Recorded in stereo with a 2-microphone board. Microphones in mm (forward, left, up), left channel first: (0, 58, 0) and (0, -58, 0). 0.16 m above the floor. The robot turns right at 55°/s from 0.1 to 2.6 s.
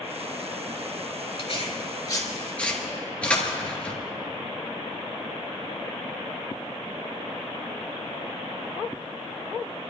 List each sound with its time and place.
1.4 s tearing paper: 60° left (ahead or behind), 3 m; by 4.0 s 10° left (ahead or behind), 3 m